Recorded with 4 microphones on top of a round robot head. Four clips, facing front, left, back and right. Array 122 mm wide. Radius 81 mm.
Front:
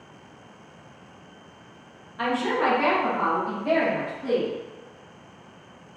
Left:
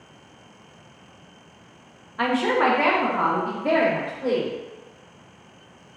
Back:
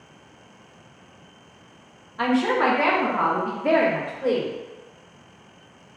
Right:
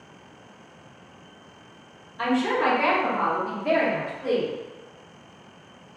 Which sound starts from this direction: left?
A woman speaking, at 2.2 s.